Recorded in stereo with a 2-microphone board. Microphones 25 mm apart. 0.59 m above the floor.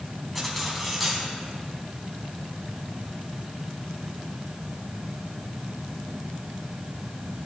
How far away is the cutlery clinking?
About 2.5 m.